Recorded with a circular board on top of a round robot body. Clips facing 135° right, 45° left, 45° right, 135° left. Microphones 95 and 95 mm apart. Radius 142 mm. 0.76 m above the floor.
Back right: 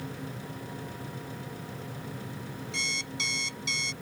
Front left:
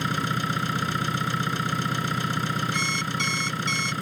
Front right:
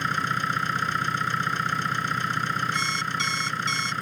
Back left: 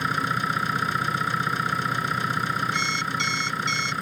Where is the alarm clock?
5° left.